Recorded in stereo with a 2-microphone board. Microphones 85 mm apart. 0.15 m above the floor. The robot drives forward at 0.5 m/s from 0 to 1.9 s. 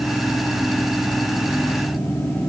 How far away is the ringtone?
I don't hear a ringtone.